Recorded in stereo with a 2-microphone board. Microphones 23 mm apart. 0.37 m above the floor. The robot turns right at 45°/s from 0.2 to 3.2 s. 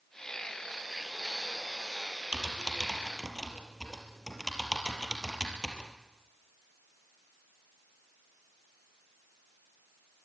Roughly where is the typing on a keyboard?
Right.